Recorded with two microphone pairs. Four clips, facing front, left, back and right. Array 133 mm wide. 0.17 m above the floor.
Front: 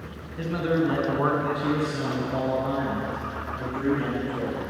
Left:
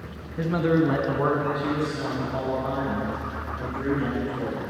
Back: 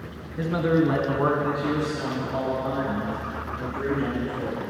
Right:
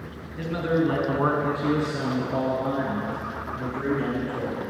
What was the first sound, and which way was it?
A man speaking, 120° left.